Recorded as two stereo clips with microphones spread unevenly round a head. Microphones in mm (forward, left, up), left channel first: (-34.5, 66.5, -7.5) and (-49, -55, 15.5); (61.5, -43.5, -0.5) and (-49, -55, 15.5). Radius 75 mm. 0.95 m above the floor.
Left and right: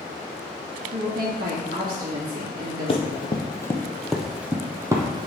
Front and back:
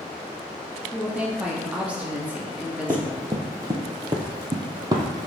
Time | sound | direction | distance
0.9 | a woman speaking | 95° right | 1.8 m
2.9 | running footsteps | 125° left | 1.6 m